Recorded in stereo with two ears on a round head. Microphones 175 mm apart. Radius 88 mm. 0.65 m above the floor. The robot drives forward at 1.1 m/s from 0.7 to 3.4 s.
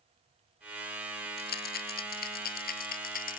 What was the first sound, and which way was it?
A rattle, 50° left (ahead or behind).